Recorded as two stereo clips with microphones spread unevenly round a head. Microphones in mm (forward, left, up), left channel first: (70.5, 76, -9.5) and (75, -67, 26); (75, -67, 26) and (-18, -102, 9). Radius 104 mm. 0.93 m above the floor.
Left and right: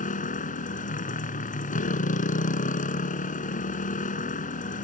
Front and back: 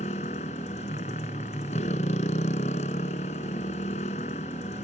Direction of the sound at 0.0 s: 55° left.